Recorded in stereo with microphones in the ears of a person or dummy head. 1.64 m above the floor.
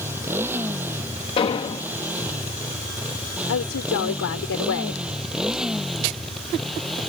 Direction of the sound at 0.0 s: 15° right (ahead or behind).